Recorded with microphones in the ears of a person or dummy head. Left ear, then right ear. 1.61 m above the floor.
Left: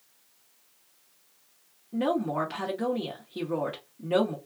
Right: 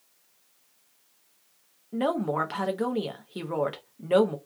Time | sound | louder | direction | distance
1.9 | a woman speaking | right 1 dB | 30° right (ahead or behind) | 0.5 m